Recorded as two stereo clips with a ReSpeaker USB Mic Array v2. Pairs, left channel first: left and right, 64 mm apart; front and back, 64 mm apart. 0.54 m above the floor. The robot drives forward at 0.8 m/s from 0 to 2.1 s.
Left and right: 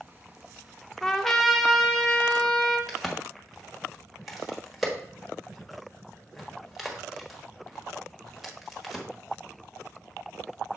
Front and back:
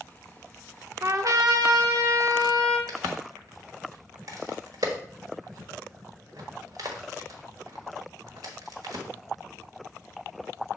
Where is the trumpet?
170° left, 0.6 m; by 2.8 s 175° left, 1.4 m.